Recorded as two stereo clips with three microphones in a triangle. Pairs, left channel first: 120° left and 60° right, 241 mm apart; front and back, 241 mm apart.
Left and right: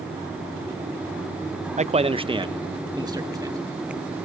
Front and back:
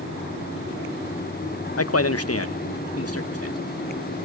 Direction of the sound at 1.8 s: 5° left.